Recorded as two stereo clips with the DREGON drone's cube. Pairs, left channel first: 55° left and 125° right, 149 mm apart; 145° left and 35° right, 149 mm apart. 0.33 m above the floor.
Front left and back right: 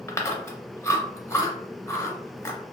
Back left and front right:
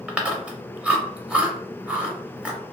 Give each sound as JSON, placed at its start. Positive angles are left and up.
{"t": 0.1, "sound": "chewing", "azimuth_deg": 35, "distance_m": 0.5}